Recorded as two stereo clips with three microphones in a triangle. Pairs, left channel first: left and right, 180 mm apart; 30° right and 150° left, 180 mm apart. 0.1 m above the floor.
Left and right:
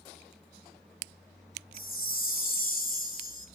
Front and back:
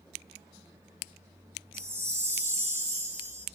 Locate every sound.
1.7 s a chime: 80° left, 0.9 m